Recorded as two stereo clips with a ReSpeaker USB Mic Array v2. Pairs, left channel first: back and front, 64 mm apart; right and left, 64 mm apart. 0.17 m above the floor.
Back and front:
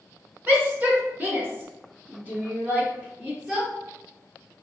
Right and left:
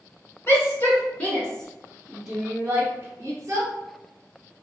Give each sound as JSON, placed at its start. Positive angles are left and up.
{"t": 0.5, "sound": "a shout", "azimuth_deg": -50, "distance_m": 1.6}